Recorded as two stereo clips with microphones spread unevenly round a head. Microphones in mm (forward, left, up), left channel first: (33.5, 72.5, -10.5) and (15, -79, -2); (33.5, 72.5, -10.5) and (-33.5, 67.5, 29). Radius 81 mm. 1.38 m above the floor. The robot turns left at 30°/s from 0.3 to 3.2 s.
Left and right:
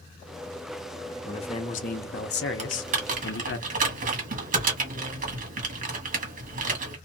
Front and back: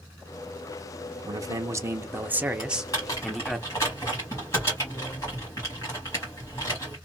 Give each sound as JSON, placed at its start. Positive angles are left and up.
{"t": 1.2, "sound": "a man speaking", "azimuth_deg": 145, "distance_m": 0.9}
{"t": 2.6, "sound": "typing on a keyboard", "azimuth_deg": -65, "distance_m": 1.2}